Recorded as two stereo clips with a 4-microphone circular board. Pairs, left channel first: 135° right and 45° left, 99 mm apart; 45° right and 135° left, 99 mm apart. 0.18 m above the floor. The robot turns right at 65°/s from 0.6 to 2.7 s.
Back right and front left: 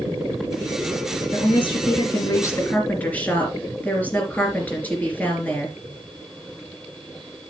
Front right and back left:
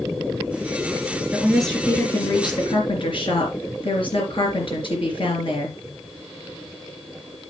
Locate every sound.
1.3 s a woman speaking: 155° right, 3.5 m; by 5.8 s 65° right, 3.5 m